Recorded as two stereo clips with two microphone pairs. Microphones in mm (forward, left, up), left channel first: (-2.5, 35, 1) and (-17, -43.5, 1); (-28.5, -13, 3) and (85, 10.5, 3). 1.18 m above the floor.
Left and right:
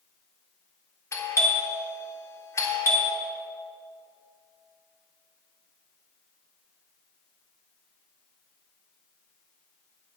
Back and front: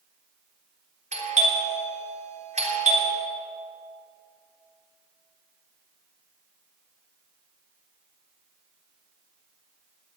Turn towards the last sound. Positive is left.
turn(degrees=25)